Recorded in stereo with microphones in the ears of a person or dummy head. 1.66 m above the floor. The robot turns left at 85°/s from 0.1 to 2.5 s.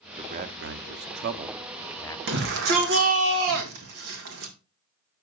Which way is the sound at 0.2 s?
30° right (ahead or behind).